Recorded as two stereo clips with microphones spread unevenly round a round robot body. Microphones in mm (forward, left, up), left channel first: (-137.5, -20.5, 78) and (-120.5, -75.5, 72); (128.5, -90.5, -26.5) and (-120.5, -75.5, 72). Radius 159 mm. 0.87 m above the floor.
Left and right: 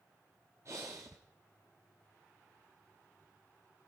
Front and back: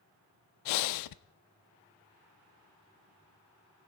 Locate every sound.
0.7 s breathing: 5° right, 0.5 m